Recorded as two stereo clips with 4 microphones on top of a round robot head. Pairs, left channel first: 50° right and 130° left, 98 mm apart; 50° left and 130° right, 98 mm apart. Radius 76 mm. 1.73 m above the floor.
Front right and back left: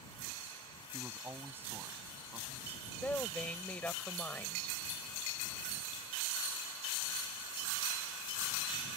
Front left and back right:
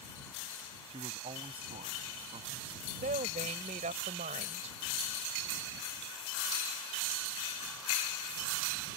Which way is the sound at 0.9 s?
160° right.